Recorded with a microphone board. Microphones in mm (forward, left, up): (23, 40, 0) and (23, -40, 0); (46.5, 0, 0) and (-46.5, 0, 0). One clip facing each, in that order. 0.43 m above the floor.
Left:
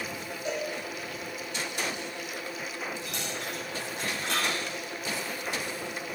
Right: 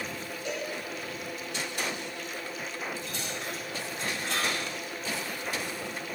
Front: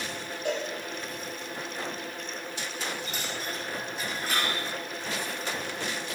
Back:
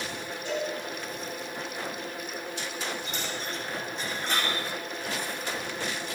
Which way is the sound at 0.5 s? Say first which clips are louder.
Left 3 dB, front 1 dB; 20° left.